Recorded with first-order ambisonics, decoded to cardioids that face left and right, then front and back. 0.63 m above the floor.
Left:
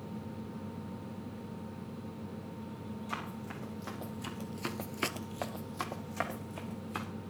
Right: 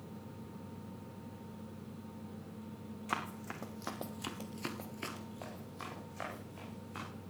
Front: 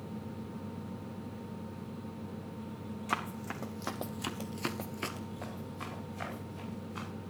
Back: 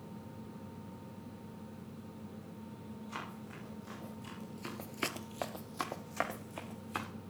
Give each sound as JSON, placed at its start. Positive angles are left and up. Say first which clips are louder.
{"t": 3.1, "sound": "running footsteps", "louder": "right 3 dB, front 10 dB", "azimuth_deg": -20, "distance_m": 2.5}